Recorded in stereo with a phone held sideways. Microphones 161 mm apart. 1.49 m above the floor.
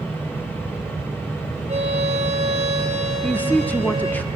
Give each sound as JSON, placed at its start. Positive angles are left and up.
{"t": 0.0, "sound": "a fan", "side_deg": 15, "distance_m": 4.0}
{"t": 1.7, "sound": "a violin", "side_deg": -40, "distance_m": 7.5}
{"t": 3.2, "sound": "a woman speaking", "side_deg": 10, "distance_m": 0.8}